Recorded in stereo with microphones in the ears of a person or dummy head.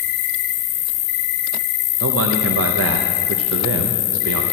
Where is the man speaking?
65° right (ahead or behind), 1.0 m.